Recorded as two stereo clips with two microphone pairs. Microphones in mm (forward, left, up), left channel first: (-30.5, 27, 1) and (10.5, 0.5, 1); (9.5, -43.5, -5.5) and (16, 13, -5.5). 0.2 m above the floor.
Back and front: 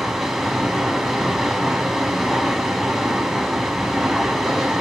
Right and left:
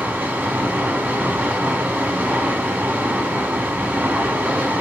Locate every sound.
0.0 s running water: 50° left, 0.8 m